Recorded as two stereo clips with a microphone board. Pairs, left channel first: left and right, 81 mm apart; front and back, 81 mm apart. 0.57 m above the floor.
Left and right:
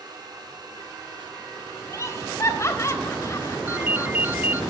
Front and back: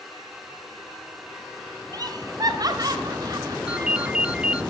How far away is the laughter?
About 2.5 m.